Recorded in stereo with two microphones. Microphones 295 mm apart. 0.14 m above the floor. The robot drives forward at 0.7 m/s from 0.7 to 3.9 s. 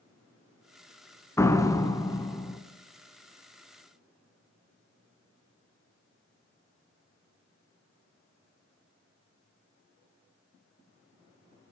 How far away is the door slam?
About 1.0 m.